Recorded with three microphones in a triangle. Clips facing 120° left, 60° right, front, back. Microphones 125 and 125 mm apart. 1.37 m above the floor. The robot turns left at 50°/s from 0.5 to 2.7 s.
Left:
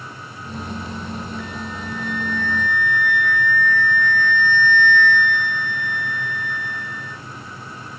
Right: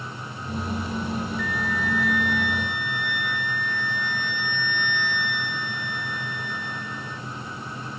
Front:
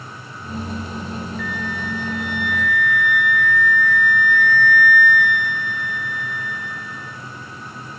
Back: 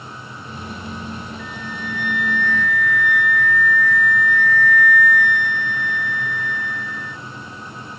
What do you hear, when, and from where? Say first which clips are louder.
1.4 s a flute: right 3 dB, front 4 dB; 20° right, 0.6 m; by 7.2 s 90° right, 0.6 m